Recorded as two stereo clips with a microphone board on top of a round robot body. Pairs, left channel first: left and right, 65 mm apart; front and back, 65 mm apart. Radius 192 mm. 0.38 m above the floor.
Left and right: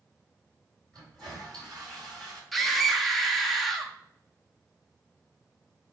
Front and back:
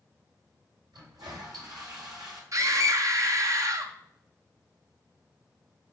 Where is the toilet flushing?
170° left, 4.5 m.